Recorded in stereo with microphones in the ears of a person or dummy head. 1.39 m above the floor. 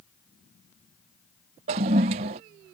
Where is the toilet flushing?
25° right (ahead or behind).